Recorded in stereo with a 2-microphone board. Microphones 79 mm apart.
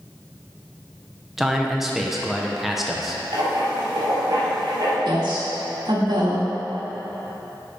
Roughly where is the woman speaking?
Right.